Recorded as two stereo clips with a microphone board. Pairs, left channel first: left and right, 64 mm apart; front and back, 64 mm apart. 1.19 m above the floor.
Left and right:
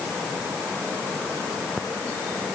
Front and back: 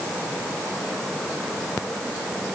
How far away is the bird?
No bird in this recording.